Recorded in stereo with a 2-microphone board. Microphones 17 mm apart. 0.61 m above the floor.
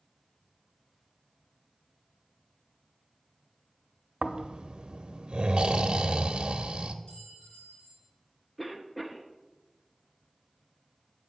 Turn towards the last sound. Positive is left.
turn(degrees=5)  # may be behind; listen again after turning